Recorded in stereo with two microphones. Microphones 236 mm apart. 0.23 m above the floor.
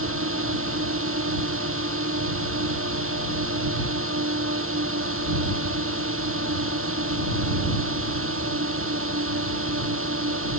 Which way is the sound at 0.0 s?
75° right (ahead or behind).